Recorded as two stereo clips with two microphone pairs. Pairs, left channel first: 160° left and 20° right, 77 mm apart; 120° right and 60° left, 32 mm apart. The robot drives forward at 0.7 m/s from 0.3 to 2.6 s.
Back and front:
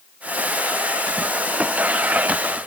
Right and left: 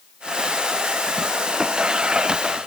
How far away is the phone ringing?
I don't hear a phone ringing.